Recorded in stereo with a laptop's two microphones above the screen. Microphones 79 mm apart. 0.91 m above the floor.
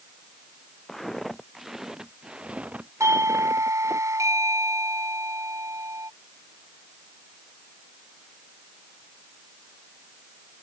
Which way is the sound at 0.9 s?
5° left (ahead or behind).